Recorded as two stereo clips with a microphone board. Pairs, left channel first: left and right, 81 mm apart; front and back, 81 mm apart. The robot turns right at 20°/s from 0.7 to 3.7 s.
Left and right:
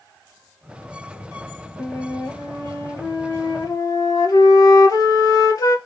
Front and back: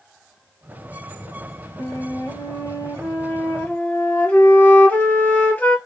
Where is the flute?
25° left, 0.5 m; by 5.8 s 65° left, 0.5 m.